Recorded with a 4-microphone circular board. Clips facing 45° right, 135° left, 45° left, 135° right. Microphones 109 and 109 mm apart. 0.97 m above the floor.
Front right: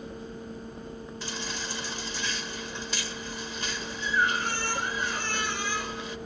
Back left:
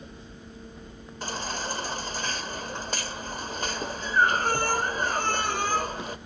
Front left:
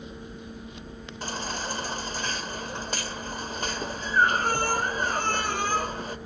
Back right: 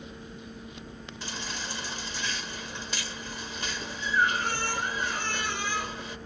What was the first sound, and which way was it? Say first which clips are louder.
A baby crying: back left 7 dB, front left 6 dB; 90° left.